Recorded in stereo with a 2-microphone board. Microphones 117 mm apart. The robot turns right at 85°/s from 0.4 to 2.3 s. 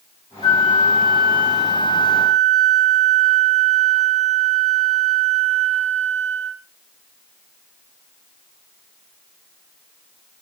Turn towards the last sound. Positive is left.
turn(degrees=85)